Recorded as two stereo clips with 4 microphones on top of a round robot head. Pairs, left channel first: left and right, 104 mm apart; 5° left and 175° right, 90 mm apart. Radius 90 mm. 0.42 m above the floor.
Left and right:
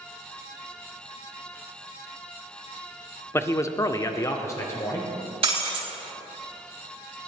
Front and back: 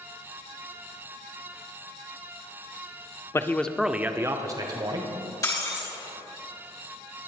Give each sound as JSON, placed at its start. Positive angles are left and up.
{"t": 3.3, "sound": "a man speaking", "azimuth_deg": 40, "distance_m": 0.9}
{"t": 5.4, "sound": "breaking glass", "azimuth_deg": -55, "distance_m": 4.0}